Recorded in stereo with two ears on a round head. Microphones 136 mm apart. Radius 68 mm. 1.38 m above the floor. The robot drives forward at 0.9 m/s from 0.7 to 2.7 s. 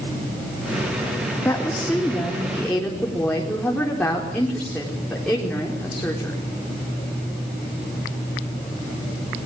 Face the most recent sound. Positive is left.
turn(degrees=10)  # may be behind; listen again after turning